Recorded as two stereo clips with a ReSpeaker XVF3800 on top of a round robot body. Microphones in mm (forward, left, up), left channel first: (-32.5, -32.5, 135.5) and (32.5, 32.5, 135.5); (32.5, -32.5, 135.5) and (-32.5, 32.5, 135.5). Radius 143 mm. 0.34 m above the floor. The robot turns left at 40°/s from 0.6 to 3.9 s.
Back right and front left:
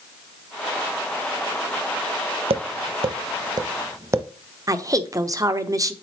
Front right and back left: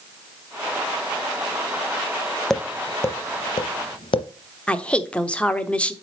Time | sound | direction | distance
2.5 | tapping | 40° left | 0.6 m
4.7 | a woman speaking | 25° left | 1.0 m